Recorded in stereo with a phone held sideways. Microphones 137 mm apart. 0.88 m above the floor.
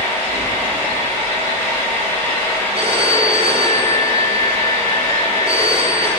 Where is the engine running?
15° left (ahead or behind), 1.6 m.